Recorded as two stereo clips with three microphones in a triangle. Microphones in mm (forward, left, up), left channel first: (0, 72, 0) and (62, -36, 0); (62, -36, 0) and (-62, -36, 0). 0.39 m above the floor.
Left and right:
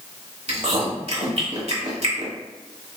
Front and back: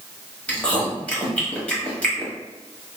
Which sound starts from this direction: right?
Chewing, at 0.5 s.